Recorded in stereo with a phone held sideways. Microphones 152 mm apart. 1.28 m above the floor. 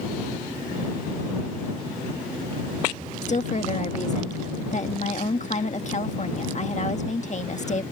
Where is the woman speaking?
50° left (ahead or behind).